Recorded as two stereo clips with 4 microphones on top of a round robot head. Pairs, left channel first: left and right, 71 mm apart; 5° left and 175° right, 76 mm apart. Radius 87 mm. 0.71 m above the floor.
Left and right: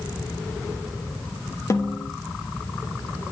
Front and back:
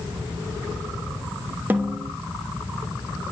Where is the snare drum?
120° left, 1.3 m.